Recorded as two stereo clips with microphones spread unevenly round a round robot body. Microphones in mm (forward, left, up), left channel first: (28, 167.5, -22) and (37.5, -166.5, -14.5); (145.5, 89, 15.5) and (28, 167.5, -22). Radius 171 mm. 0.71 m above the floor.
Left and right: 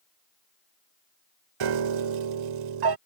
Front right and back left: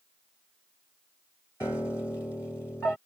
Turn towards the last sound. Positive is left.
turn(degrees=-115)